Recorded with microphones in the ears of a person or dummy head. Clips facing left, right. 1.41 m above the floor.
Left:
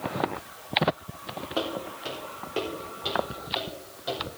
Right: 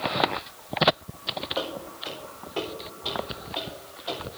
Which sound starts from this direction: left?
Footsteps, at 1.6 s.